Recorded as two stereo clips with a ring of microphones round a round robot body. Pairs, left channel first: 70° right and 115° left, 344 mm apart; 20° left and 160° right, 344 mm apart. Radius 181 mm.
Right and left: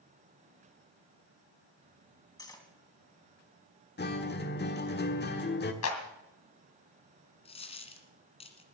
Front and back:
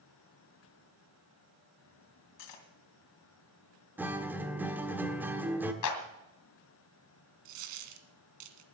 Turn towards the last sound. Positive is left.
turn(degrees=-145)